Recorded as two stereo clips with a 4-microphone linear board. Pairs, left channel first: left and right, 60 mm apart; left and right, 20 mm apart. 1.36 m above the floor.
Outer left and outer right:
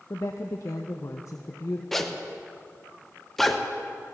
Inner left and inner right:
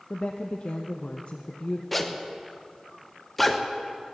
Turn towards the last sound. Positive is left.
turn(degrees=5)  # may be behind; listen again after turning